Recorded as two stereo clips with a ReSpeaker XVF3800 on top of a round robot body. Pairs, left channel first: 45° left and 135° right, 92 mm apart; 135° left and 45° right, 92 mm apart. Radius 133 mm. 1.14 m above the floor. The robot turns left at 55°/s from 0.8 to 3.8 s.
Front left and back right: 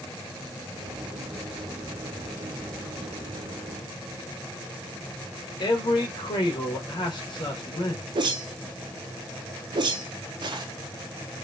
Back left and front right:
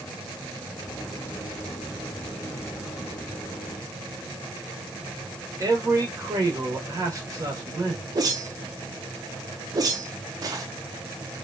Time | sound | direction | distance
5.6 | a man speaking | 5° left | 2.0 m
8.2 | a whoosh | 95° right | 0.7 m